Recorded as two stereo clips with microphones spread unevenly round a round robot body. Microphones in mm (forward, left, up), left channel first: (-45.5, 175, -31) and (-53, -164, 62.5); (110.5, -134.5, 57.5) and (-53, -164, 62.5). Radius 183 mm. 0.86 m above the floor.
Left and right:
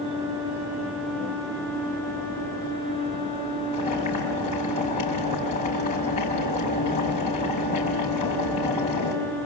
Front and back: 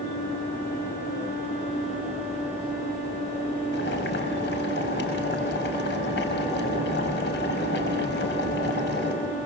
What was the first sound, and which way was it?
Boiling, 15° left.